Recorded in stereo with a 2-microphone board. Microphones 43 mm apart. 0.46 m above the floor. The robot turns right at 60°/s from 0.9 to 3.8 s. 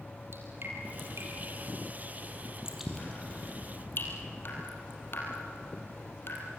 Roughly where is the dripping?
Right.